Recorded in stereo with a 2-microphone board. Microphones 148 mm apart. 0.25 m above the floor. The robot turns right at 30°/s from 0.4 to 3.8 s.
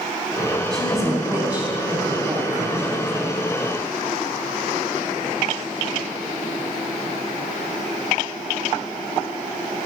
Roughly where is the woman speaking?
Behind.